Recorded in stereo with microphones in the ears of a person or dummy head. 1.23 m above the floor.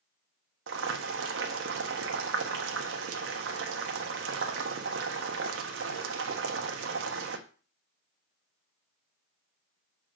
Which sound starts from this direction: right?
Boiling, at 0.7 s.